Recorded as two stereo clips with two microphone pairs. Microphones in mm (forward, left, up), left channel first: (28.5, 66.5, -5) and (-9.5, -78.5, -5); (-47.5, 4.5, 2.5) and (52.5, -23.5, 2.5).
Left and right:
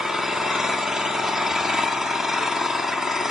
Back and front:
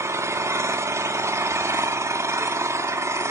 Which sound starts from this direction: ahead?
An engine running, at 0.0 s.